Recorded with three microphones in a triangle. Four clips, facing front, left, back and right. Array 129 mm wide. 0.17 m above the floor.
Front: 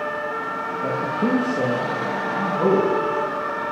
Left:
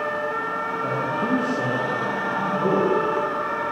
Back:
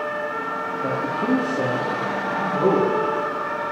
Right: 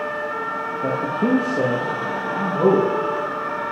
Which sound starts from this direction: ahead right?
A man speaking, at 0.8 s.